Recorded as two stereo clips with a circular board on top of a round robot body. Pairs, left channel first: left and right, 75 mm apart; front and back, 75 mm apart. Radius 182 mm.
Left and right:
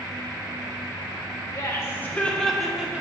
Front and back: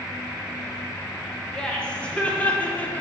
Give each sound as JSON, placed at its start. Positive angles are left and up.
{"t": 1.5, "sound": "laughter", "azimuth_deg": 75, "distance_m": 1.3}